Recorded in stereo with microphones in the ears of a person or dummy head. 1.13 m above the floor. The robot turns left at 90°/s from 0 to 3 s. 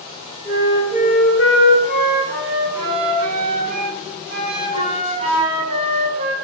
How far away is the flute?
About 1.0 m.